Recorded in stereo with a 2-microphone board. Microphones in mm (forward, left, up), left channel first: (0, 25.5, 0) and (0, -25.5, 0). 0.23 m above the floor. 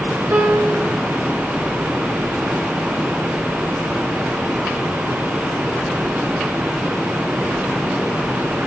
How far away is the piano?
About 1.8 m.